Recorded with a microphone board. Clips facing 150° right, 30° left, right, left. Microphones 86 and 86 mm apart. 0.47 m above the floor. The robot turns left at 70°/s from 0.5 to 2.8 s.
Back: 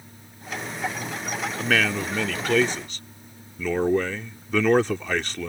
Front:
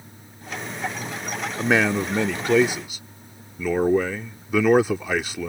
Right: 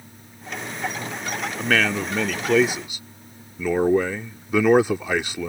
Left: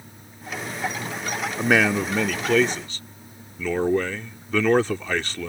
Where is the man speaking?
50° left; by 5.5 s 35° right.